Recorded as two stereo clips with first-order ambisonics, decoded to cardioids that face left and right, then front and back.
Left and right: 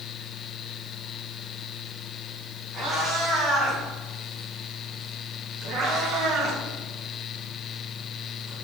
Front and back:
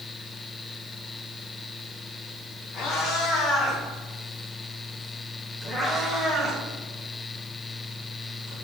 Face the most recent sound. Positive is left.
turn(degrees=-140)